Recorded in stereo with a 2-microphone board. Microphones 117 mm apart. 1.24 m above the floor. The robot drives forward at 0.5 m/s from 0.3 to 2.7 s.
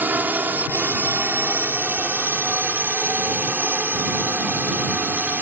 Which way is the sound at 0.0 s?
15° right (ahead or behind).